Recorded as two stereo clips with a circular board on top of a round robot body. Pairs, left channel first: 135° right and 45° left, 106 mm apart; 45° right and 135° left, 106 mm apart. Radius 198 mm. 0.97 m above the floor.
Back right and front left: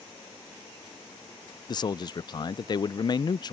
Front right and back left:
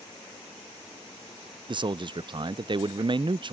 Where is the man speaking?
Straight behind.